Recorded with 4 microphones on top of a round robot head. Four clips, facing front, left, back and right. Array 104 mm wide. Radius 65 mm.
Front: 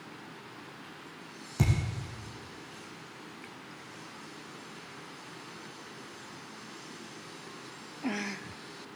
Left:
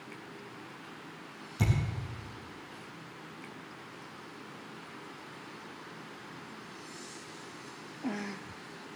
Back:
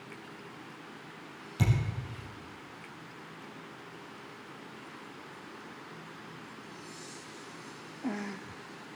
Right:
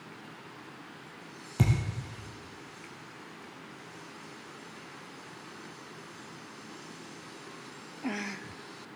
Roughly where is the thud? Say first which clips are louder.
Right 3 dB, front 1 dB; ahead right.